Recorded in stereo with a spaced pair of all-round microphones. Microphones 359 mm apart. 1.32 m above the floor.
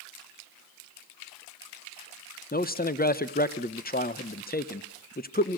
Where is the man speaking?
25° left (ahead or behind), 0.8 m.